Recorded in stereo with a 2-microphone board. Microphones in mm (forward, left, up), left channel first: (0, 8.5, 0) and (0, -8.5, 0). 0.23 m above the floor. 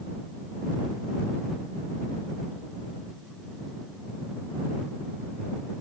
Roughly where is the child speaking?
No child speaking in this recording.